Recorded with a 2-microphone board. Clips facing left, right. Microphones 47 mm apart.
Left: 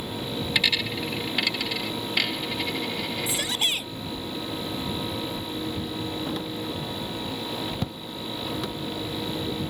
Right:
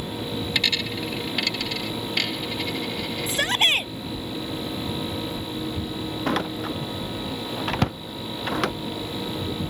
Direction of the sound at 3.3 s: 45° right (ahead or behind).